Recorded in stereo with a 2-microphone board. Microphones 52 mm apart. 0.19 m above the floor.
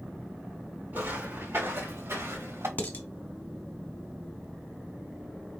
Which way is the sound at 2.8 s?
35° left (ahead or behind).